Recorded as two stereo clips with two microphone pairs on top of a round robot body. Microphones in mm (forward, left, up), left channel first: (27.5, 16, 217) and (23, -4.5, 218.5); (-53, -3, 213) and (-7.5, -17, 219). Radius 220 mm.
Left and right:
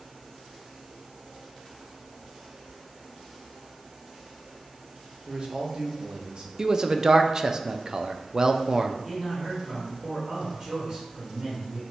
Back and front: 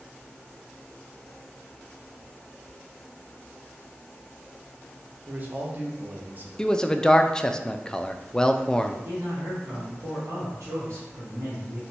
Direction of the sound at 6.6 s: 145° right.